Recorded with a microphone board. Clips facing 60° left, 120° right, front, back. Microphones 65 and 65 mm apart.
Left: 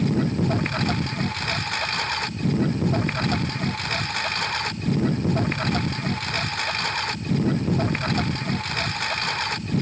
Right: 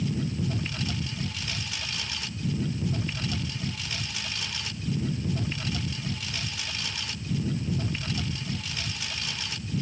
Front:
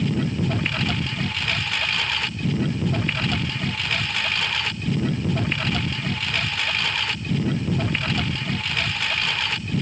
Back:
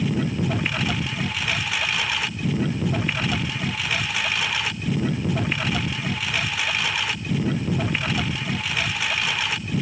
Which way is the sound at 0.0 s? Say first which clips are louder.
Left 8 dB, even; 95° left.